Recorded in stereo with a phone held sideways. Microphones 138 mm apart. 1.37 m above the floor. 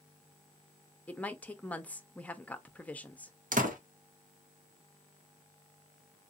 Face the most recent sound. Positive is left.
turn(degrees=-75)  # may be behind; listen again after turning